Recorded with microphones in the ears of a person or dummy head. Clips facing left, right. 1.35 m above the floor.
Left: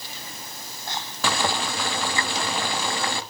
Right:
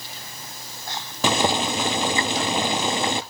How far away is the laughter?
No laughter in this recording.